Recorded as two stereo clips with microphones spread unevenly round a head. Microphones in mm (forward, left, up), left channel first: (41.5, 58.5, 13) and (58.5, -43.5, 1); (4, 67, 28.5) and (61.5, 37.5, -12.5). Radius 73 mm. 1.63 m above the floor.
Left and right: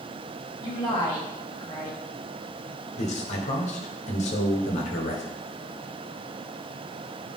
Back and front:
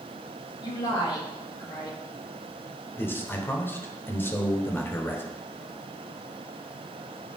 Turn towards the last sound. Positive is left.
turn(degrees=90)